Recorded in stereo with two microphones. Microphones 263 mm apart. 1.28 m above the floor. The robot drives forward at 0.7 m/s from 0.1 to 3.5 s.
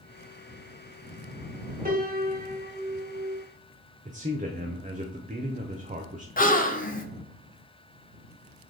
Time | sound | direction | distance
1.9 | a piano | 35° right (ahead or behind) | 1.3 m
4.0 | a man speaking | 30° right (ahead or behind) | 0.6 m
6.4 | a gasp | 35° left (ahead or behind) | 0.5 m